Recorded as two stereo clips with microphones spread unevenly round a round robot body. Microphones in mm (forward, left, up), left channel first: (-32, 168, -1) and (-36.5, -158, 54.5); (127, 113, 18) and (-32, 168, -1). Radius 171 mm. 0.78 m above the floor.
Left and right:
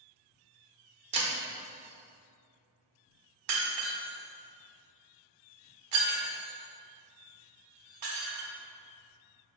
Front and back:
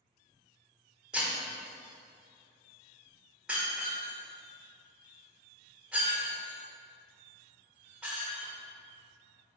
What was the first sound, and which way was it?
Breaking glass, 110° right.